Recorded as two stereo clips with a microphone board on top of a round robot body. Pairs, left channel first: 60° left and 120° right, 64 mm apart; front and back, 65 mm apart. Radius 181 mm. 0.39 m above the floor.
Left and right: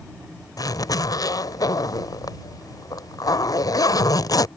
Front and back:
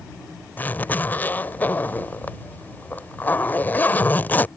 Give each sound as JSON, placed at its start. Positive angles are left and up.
{"t": 0.6, "sound": "a zipper", "azimuth_deg": 60}